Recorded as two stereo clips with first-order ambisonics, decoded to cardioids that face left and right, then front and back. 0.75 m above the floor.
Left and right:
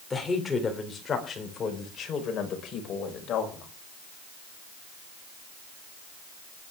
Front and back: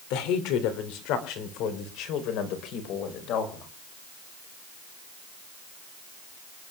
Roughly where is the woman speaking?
Ahead.